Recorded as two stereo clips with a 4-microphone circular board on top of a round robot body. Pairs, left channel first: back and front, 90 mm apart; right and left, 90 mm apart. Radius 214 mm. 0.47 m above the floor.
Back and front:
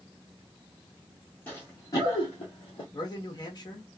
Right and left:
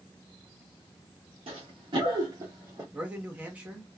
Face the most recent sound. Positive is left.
turn(degrees=165)